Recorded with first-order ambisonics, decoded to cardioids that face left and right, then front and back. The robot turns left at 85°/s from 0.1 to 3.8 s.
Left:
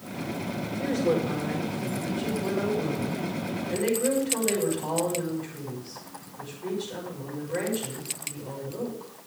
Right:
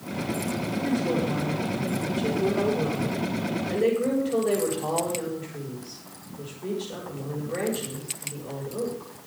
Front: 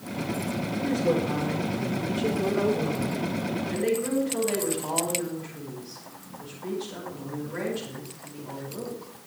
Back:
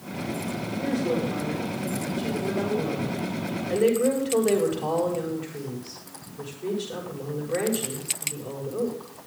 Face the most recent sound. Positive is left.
turn(degrees=-160)